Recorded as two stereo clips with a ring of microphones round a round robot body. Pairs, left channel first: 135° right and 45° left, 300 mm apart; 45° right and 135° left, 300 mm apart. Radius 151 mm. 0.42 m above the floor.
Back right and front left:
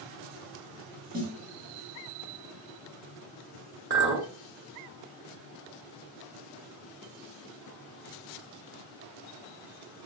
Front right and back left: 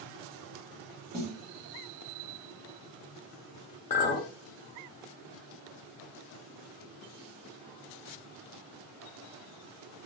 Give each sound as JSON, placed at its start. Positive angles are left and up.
{"t": 1.1, "sound": "a snare drum", "azimuth_deg": 70, "distance_m": 1.2}
{"t": 3.9, "sound": "a clink", "azimuth_deg": 10, "distance_m": 0.8}